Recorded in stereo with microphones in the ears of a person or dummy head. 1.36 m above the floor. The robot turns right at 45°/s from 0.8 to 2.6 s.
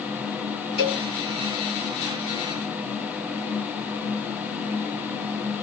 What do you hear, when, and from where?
0.8 s a cowbell: 10° right (ahead or behind), 1.6 m; by 1.0 s 20° right (ahead or behind), 1.6 m